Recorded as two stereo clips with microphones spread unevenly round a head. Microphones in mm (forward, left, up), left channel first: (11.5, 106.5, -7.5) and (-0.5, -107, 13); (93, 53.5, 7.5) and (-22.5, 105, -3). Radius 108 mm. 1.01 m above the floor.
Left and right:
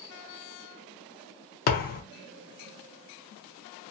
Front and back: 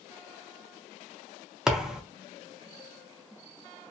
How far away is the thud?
About 0.6 m.